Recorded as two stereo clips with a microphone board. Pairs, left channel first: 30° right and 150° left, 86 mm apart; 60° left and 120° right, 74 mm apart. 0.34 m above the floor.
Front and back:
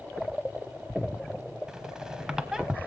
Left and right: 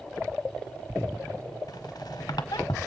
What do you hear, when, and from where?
1.7 s a squeak: 70° left, 0.7 m